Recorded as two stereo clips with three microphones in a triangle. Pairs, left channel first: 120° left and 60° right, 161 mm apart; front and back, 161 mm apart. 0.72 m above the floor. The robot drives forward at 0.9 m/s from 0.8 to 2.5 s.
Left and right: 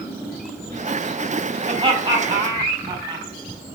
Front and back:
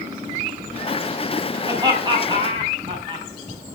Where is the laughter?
115° right, 5 m; by 3.3 s 125° right, 5.5 m.